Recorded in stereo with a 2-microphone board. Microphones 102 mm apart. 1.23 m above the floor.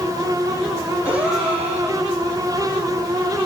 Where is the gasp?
10° right (ahead or behind), 4 m.